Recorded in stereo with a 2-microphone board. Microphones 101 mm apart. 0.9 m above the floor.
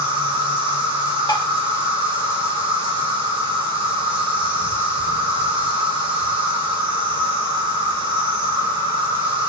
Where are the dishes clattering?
45° left (ahead or behind), 0.5 m.